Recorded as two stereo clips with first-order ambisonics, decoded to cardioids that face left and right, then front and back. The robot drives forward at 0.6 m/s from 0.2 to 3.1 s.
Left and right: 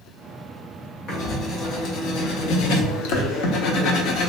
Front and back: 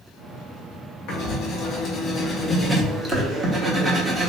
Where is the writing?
35° left, 1.2 m; by 4.3 s 110° left, 0.8 m.